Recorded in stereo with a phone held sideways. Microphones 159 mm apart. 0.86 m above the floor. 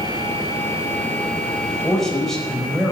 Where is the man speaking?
5° left (ahead or behind), 4.5 m.